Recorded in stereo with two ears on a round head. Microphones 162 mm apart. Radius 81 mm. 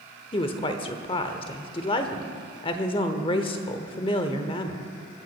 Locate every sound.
0.3 s a woman speaking: 30° left (ahead or behind), 0.9 m